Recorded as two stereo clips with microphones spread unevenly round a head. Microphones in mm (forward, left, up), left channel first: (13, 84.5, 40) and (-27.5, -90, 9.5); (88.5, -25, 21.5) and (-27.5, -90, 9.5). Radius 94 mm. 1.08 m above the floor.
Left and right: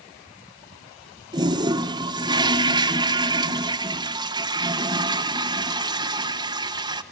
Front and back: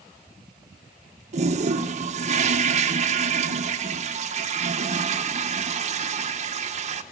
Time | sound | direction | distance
1.3 | a toilet flushing | 160° right | 0.9 m